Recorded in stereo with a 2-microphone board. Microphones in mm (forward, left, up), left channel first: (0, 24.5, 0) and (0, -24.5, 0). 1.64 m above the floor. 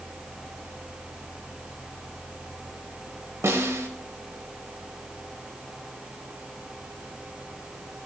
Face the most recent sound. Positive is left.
turn(degrees=-70)  # may be behind; listen again after turning